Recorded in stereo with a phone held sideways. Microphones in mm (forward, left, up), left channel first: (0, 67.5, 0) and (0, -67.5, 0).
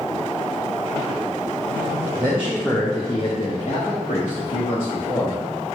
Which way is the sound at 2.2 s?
20° right (ahead or behind).